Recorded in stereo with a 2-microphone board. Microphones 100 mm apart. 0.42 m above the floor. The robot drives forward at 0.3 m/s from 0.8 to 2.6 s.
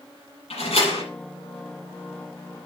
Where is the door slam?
85° left, 7.5 m.